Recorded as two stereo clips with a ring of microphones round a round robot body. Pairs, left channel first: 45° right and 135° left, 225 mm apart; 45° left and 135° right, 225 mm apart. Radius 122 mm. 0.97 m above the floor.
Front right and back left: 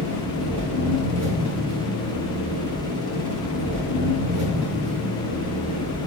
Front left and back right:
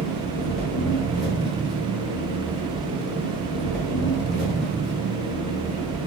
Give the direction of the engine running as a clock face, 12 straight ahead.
7 o'clock.